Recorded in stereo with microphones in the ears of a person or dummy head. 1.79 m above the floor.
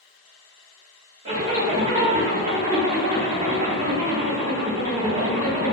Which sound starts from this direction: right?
A zipper, at 1.2 s.